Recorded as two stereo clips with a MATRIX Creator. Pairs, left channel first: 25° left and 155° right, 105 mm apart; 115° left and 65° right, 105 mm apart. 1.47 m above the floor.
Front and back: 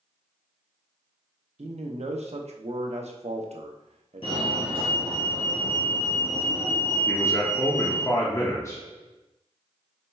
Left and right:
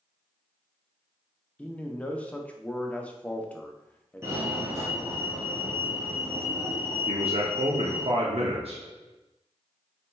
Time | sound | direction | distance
1.6 | a man speaking | 170° right | 0.6 m
4.2 | a fire alarm | 5° right | 1.7 m
7.1 | a man speaking | 40° right | 0.7 m